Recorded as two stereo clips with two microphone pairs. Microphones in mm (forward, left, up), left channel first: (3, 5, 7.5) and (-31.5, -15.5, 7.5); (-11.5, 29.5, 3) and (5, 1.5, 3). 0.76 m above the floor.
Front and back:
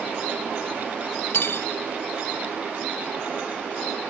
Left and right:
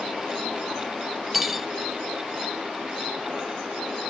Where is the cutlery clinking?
25° left, 0.6 m.